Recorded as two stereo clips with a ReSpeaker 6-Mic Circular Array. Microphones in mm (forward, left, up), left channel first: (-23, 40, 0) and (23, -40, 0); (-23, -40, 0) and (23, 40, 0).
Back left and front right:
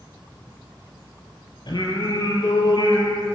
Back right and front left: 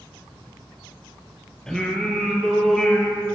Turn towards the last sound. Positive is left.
turn(degrees=155)